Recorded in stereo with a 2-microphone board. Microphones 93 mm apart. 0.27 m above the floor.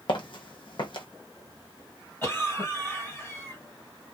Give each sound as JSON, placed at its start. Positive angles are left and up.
{"t": 0.1, "sound": "footsteps", "side_deg": 60, "distance_m": 0.6}
{"t": 2.2, "sound": "a cough", "side_deg": 25, "distance_m": 2.0}